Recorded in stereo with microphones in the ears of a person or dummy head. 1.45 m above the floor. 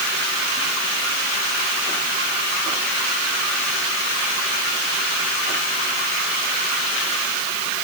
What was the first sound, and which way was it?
Only background noise.